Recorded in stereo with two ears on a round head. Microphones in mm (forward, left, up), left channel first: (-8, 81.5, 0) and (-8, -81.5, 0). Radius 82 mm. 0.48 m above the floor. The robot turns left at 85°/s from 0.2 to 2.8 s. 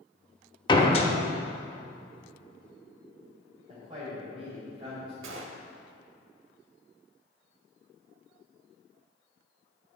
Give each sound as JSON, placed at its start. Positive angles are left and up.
{"t": 0.7, "sound": "a door slam", "azimuth_deg": 135, "distance_m": 0.9}
{"t": 3.7, "sound": "a man speaking", "side_deg": -30, "distance_m": 2.5}
{"t": 5.2, "sound": "a gunshot", "side_deg": -75, "distance_m": 0.8}